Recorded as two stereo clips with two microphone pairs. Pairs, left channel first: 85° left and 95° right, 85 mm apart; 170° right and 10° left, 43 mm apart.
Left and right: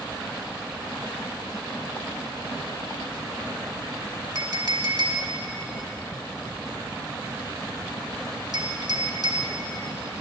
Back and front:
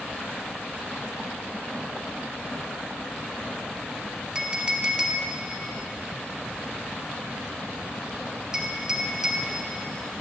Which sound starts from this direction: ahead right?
A clink, at 4.3 s.